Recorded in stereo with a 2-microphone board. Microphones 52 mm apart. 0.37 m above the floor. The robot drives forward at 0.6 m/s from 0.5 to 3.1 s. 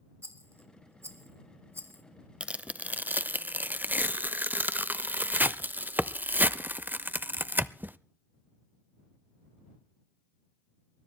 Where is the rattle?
55° right (ahead or behind), 1.4 m; by 2.0 s 50° right (ahead or behind), 1.5 m.